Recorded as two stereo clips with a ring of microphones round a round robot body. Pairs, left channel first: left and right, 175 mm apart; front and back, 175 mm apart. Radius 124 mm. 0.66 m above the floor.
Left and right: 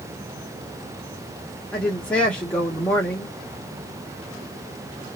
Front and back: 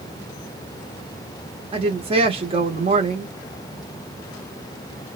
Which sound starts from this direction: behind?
A woman speaking, at 1.7 s.